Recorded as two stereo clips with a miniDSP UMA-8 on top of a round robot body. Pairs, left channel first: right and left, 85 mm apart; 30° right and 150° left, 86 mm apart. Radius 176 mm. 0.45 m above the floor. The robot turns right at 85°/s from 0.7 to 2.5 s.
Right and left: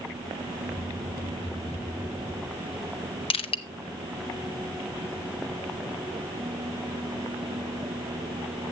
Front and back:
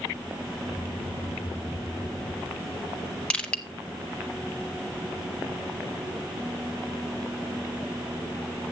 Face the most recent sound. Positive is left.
turn(degrees=-105)